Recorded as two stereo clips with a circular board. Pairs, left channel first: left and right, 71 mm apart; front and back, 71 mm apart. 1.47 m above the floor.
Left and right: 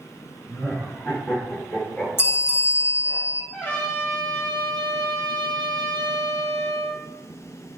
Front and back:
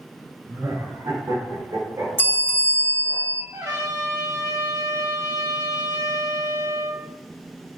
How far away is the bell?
About 1.1 m.